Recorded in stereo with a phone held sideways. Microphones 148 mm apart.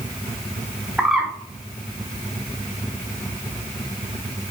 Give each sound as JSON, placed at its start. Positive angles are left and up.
{"t": 1.0, "sound": "a bird", "side_deg": -5, "distance_m": 0.6}